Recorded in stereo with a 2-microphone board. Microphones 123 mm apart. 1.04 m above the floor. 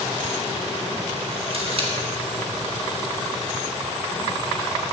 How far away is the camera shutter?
About 1.6 m.